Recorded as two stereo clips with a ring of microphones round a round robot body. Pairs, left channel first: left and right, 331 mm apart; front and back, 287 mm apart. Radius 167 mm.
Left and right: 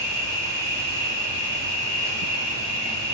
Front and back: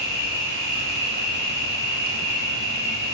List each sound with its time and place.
0.0 s an insect: 40° left, 1.9 m